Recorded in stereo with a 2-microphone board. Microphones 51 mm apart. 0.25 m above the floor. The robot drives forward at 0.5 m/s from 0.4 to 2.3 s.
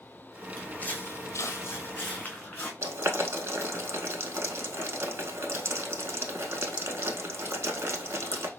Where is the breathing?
I don't hear breathing.